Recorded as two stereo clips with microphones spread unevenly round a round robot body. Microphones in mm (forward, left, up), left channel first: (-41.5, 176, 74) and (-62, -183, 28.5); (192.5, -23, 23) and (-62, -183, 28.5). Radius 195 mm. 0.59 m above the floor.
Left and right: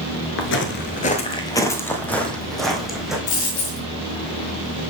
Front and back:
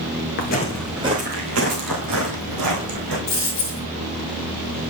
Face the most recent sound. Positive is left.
turn(degrees=85)